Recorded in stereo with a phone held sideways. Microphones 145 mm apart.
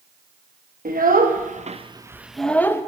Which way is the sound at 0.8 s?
75° right (ahead or behind).